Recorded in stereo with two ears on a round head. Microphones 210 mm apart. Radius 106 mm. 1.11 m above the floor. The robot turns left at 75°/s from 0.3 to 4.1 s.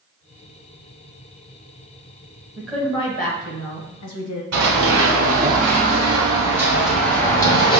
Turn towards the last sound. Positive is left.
turn(degrees=25)  # may be behind; listen again after turning